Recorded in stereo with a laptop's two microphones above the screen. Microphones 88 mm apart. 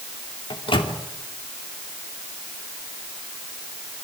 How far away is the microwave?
About 2.5 m.